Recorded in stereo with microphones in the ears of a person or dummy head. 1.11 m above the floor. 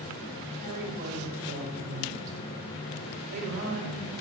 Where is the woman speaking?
45° right (ahead or behind), 4 m.